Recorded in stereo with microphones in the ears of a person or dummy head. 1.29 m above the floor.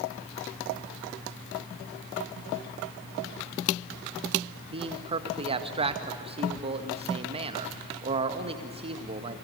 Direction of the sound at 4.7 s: 30° right (ahead or behind).